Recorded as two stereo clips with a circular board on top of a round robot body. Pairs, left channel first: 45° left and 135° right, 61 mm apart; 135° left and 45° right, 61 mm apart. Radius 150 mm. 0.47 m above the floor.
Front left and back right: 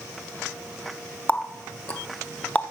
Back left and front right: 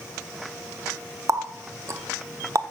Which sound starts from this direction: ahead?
A running tap, at 1.3 s.